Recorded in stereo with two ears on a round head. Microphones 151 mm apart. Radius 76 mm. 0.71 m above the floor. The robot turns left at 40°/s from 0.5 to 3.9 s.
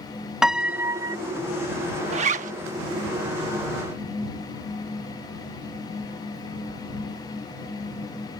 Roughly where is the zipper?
Right.